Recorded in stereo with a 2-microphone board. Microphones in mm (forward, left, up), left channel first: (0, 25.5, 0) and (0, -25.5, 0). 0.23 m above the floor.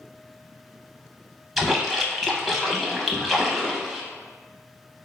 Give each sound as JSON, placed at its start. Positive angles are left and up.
{"t": 1.6, "sound": "a splash", "side_deg": 0, "distance_m": 0.5}